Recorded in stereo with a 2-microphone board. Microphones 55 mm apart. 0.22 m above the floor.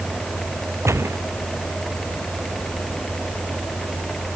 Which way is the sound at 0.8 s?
60° right (ahead or behind).